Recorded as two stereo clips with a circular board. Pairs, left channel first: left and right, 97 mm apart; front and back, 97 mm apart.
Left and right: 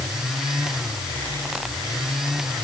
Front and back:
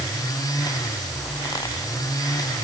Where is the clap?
No clap in this recording.